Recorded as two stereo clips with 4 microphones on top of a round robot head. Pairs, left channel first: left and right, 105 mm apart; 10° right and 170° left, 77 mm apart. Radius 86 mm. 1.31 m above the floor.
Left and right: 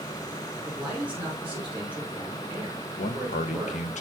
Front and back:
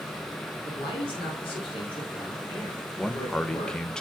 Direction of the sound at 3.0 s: 75° left.